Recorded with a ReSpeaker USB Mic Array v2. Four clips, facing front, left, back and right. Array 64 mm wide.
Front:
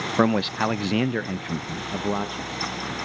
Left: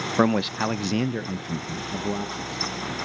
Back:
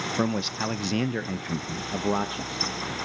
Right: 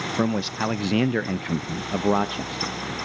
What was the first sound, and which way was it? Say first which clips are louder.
A man speaking: left 4 dB, front 8 dB; 35° left.